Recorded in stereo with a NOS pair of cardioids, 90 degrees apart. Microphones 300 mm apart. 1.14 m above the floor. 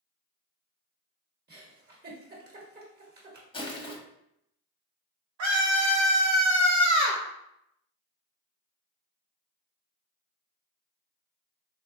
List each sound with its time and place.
1.5 s a giggle: 35° right, 1.3 m
3.5 s crushing: 15° left, 1.0 m
5.4 s a scream: 65° right, 0.7 m